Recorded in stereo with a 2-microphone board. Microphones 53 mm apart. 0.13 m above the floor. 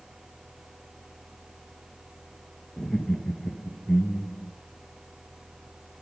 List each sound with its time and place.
2.8 s laughter: 10° left (ahead or behind), 1.9 m